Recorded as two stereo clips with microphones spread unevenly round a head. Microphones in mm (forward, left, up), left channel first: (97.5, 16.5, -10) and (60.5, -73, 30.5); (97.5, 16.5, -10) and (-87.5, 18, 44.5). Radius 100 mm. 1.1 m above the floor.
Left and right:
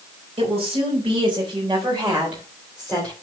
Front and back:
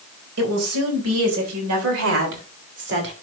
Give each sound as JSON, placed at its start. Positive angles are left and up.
{"t": 0.4, "sound": "a woman speaking", "azimuth_deg": -170, "distance_m": 4.5}